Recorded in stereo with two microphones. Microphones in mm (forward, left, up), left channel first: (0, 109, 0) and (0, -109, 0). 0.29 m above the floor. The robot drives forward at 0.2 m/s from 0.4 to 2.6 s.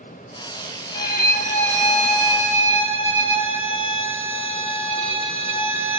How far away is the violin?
About 0.5 m.